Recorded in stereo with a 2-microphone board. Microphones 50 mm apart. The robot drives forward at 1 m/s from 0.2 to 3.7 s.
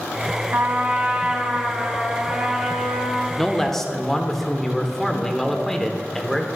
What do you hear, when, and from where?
0.5 s a trumpet: 45° right (ahead or behind), 0.8 m; by 3.3 s 10° right (ahead or behind), 3.5 m
3.4 s a man speaking: 10° left (ahead or behind), 0.9 m